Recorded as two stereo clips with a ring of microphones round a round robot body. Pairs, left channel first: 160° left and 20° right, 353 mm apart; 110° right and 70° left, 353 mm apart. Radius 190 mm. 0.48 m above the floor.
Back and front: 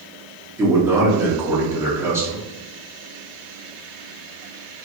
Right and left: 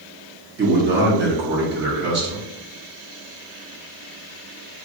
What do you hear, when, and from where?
0.6 s a man speaking: 55° left, 1.0 m